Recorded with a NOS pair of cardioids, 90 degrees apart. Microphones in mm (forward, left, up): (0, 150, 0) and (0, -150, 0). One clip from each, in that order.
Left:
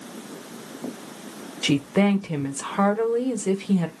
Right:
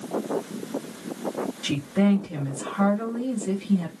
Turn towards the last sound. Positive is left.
turn(degrees=65)